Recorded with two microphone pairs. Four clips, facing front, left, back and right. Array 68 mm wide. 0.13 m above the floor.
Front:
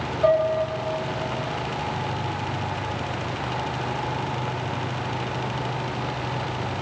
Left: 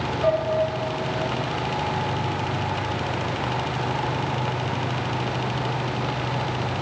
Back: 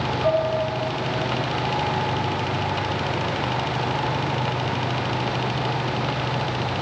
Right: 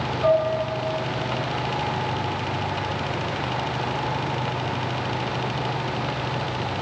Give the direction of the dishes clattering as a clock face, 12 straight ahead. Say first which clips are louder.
Right 3 dB, front 3 dB; 2 o'clock.